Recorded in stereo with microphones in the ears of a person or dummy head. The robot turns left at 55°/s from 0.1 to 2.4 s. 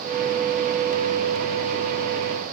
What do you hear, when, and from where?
Only background noise.